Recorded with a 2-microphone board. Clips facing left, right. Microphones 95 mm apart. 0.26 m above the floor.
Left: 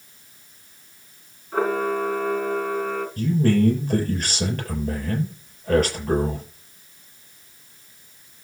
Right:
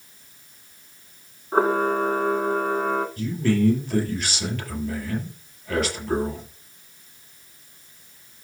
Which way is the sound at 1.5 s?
35° right (ahead or behind).